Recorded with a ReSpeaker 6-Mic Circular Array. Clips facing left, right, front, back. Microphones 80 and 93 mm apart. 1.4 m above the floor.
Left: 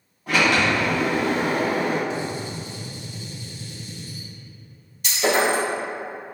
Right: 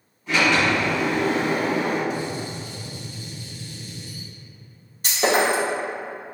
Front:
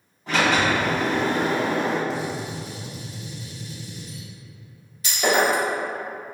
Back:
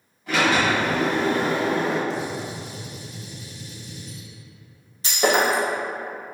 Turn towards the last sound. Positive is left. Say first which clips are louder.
# right 1 dB, even
turn(degrees=-130)